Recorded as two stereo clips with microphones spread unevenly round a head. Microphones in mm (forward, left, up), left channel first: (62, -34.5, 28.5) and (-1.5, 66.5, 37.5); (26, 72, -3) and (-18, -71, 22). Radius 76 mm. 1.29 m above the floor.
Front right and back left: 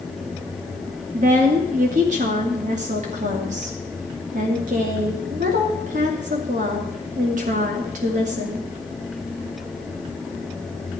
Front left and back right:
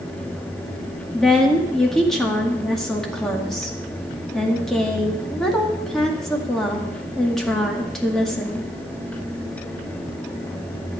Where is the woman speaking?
160° left, 1.9 m.